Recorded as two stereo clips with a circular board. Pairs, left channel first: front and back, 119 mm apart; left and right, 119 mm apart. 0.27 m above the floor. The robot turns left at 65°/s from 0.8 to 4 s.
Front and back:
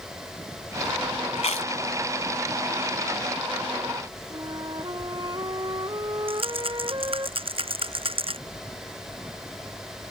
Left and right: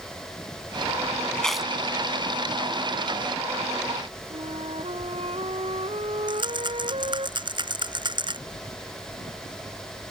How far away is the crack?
No crack in this recording.